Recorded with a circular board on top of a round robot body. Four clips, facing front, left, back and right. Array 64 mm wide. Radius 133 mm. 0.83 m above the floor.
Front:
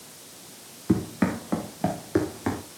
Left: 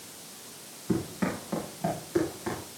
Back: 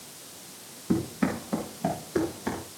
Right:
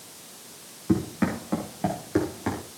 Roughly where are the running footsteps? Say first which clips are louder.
Right 5 dB, front 2 dB; ahead.